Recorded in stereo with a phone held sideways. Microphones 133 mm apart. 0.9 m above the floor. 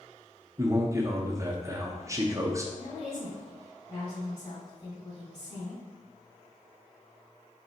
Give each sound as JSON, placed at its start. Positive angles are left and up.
{"t": 0.6, "sound": "a man speaking", "side_deg": -20, "distance_m": 0.6}
{"t": 2.8, "sound": "a woman speaking", "side_deg": 55, "distance_m": 2.0}